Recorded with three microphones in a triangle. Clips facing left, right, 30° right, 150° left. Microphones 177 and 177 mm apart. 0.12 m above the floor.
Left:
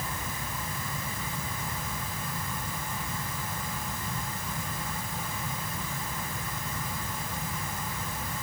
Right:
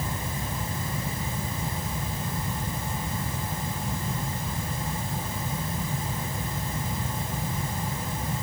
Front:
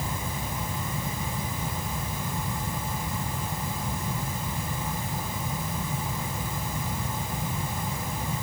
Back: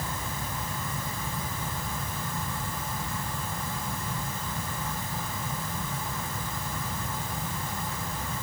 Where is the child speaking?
I don't hear a child speaking.